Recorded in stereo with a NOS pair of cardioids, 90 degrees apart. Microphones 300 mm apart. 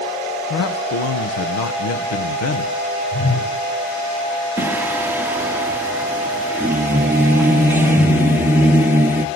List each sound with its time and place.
0.5 s a man speaking: 60° left, 1.2 m
3.1 s a whoosh: 30° left, 10 m
4.6 s singing: 5° right, 1.1 m